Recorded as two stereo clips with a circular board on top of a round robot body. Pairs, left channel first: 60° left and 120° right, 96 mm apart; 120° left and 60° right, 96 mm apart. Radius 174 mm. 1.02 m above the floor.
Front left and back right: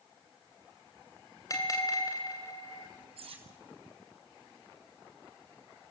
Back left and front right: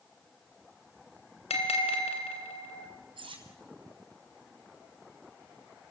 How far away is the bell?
About 3 m.